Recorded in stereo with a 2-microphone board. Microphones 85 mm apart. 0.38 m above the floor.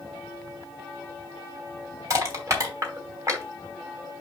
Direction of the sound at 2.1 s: 35° right (ahead or behind).